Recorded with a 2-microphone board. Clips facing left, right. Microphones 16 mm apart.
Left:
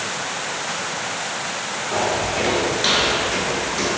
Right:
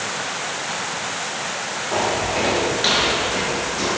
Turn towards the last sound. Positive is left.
turn(degrees=30)  # may be behind; listen again after turning